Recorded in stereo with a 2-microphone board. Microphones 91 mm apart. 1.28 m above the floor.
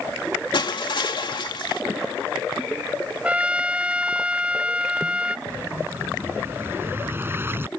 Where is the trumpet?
15° right (ahead or behind).